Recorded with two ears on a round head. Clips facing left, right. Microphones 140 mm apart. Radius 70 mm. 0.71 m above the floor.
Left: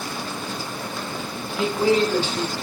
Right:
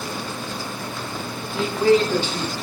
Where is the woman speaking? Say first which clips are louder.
Right 2 dB; 5° left (ahead or behind), 0.9 m.